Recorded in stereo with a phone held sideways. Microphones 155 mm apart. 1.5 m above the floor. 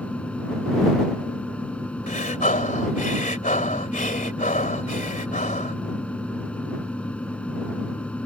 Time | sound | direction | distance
0.0 | a fan | 10° left (ahead or behind) | ?
2.1 | breathing | 60° left (ahead or behind) | ?